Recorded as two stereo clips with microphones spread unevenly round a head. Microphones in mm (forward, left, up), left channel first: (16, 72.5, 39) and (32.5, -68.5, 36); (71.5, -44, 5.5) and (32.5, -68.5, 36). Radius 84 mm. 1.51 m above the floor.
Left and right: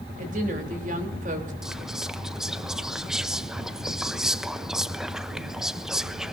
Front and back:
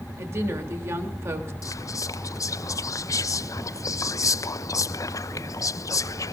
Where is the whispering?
5° left, 0.7 m.